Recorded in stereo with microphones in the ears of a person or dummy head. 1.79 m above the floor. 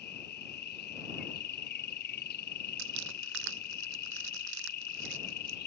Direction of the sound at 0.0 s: 50° left (ahead or behind).